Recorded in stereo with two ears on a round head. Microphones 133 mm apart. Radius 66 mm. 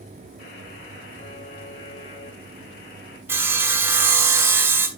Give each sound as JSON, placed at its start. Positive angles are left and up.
{"t": 0.4, "sound": "a buzzer", "side_deg": 55, "distance_m": 4.5}
{"t": 3.3, "sound": "sawing", "side_deg": -15, "distance_m": 1.6}